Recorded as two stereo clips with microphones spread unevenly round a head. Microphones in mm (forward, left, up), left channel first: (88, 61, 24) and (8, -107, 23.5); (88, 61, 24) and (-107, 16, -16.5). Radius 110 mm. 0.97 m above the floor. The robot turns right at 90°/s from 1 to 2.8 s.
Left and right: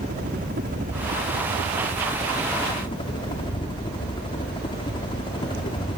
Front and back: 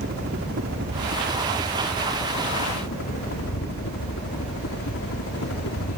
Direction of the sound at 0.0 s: 155° right.